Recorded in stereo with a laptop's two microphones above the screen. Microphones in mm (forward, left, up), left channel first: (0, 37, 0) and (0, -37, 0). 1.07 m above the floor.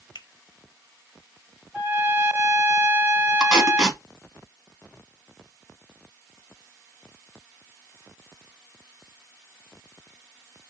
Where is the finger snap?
75° left (ahead or behind), 0.5 m.